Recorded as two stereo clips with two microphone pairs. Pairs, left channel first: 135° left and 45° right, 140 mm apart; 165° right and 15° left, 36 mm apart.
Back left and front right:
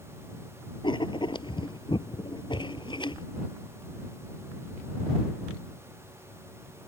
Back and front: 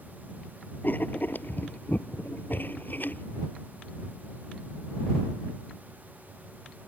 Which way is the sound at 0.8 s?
175° right.